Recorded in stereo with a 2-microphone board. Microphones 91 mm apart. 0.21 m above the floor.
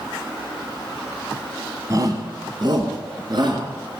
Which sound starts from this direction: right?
A shout, at 1.9 s.